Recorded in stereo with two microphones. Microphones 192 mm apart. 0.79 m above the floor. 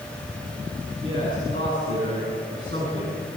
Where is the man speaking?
75° right (ahead or behind), 9 m.